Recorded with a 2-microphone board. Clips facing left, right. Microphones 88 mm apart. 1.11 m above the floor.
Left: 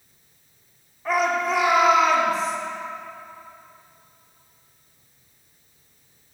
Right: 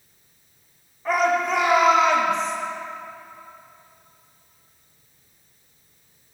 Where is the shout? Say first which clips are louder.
Right 1 dB; centre (ahead or behind), 4 m; by 2.5 s 5° left (ahead or behind), 5 m.